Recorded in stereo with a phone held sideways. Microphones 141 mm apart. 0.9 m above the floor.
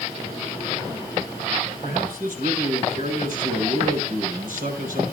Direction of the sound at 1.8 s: 75° right (ahead or behind).